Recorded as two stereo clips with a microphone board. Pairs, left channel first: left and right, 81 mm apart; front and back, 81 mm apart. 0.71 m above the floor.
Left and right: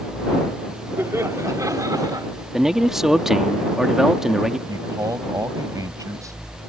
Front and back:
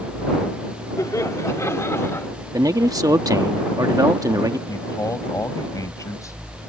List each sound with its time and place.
1.0 s laughter: 35° right; by 2.3 s 55° right
2.5 s a man speaking: 170° right
4.7 s a man speaking: 45° right